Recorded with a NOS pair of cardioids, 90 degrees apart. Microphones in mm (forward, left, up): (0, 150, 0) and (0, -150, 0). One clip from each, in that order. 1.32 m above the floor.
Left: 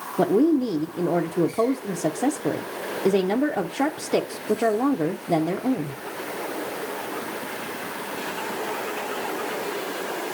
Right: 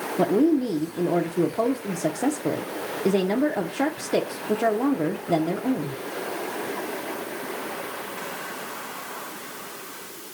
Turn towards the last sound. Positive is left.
turn(degrees=10)